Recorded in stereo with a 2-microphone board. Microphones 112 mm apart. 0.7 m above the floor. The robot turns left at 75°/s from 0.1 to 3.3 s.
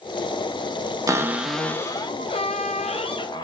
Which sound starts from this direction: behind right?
A cupboard door, at 1.1 s.